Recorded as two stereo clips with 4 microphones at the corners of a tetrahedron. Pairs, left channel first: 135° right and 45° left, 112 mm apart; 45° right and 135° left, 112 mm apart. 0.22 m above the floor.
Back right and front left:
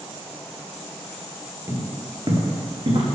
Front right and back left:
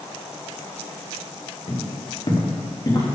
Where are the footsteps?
10° right, 3.5 m; by 3.1 s 15° left, 4 m.